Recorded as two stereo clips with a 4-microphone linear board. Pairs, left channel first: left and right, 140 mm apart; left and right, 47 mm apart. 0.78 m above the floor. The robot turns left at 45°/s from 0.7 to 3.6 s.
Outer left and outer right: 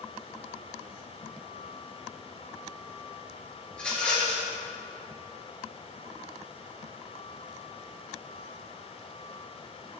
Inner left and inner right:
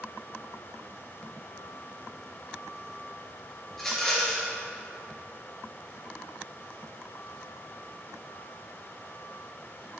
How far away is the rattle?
About 3.5 m.